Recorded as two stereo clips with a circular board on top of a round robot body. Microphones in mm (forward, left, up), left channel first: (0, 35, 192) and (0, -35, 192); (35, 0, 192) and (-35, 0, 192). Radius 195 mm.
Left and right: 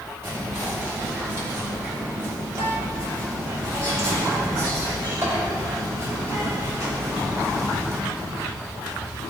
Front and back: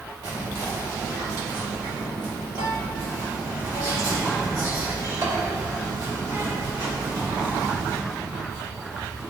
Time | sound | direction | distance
0.2 | whispering | 145° right | 2.5 m